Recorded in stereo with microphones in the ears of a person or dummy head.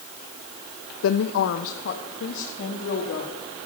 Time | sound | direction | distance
1.0 | a woman speaking | 80° left | 0.5 m